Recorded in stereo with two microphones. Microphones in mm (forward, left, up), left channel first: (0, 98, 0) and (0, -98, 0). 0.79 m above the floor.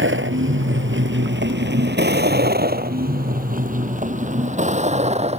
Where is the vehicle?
90° right; by 5.4 s 35° right (ahead or behind).